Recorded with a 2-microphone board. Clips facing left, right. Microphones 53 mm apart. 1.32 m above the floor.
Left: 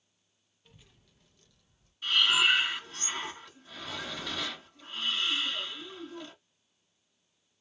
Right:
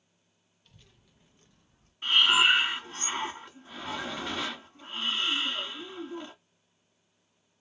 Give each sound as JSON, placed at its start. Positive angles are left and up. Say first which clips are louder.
{"t": 0.7, "sound": "a child speaking", "louder": "left 1 dB", "side_deg": 20, "distance_m": 0.6}
{"t": 2.0, "sound": "breathing", "louder": "right 3 dB", "side_deg": -40, "distance_m": 1.2}